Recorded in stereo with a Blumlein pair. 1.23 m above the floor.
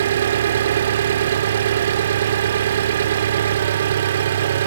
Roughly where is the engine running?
Ahead right.